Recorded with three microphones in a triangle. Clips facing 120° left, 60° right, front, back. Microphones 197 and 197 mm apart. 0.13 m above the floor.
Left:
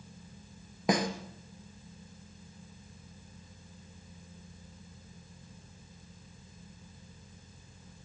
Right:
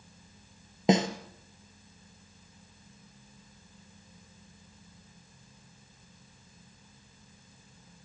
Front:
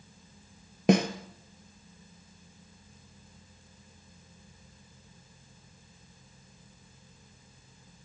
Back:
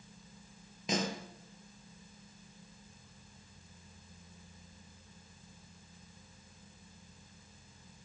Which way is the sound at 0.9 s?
5° left.